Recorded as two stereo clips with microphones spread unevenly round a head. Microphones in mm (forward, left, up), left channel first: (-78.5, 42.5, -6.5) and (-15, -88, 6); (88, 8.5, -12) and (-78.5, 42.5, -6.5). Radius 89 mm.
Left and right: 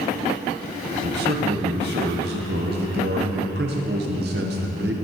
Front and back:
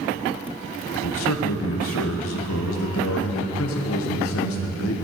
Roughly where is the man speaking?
Ahead right.